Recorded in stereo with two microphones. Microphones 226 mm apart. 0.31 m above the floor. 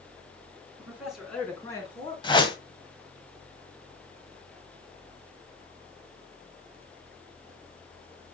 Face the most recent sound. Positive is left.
turn(degrees=20)  # may be behind; listen again after turning